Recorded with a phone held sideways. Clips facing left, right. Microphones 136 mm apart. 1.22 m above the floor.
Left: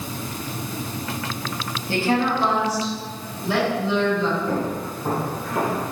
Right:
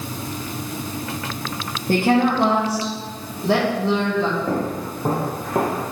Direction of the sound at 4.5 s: 40° right (ahead or behind).